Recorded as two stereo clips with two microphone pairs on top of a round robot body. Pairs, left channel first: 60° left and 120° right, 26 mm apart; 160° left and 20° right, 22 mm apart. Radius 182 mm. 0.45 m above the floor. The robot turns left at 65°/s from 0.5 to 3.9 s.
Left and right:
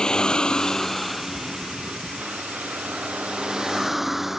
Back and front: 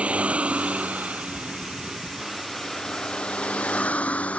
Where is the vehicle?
5° right; by 4.4 s 160° left.